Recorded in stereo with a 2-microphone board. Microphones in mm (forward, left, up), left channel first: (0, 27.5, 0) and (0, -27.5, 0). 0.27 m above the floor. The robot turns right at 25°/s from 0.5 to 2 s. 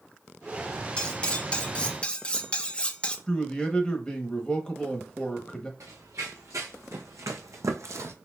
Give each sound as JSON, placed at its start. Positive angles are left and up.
{"t": 1.0, "sound": "cutlery clinking", "side_deg": 20, "distance_m": 0.5}
{"t": 3.3, "sound": "a man speaking", "side_deg": 15, "distance_m": 0.9}
{"t": 5.8, "sound": "running footsteps", "side_deg": -70, "distance_m": 1.5}